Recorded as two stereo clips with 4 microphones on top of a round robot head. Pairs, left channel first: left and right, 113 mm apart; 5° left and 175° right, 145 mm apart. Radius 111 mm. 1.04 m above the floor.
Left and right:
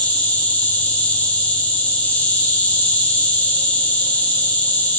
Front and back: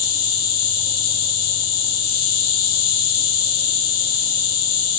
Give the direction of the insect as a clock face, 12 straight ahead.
12 o'clock.